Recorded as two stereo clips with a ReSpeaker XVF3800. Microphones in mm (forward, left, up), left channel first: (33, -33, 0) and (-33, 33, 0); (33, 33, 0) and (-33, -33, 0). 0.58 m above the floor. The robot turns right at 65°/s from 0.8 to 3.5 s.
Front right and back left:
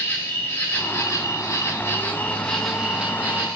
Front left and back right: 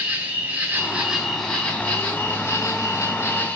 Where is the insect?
80° right, 0.9 m; by 3.6 s 95° left, 0.9 m.